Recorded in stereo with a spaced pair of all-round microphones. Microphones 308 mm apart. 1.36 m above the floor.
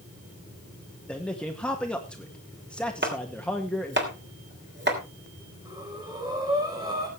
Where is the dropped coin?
I don't hear a dropped coin.